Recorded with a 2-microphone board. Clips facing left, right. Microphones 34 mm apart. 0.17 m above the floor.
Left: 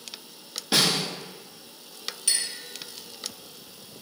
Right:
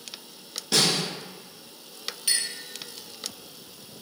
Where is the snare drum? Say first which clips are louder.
Left 1 dB; 20° left (ahead or behind), 0.8 m.